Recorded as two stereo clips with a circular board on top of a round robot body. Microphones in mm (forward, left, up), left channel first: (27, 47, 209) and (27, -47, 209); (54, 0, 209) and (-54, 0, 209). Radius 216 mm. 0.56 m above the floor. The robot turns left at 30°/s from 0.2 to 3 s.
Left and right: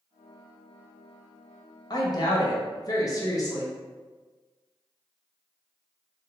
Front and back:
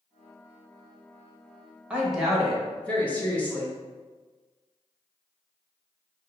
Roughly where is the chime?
No chime in this recording.